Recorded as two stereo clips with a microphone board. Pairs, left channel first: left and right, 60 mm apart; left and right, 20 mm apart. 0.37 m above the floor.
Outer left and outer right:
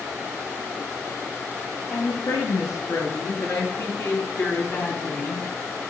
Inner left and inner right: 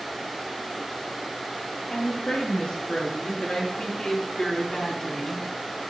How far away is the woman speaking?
About 6.5 m.